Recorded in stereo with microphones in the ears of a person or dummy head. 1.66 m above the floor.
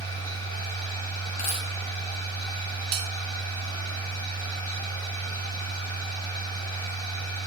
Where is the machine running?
20° left (ahead or behind), 3.5 m.